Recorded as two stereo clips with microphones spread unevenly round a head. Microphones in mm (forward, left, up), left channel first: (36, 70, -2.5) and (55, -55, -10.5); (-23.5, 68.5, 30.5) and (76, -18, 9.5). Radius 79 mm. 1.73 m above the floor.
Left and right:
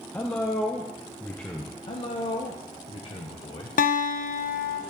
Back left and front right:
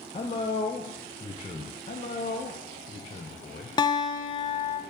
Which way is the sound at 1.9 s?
140° left.